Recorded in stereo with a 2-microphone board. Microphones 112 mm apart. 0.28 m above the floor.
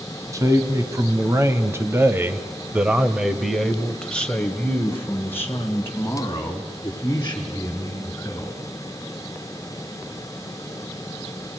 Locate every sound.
0.3 s a man speaking: 30° right (ahead or behind), 2 m; by 8.5 s 25° left (ahead or behind), 3.5 m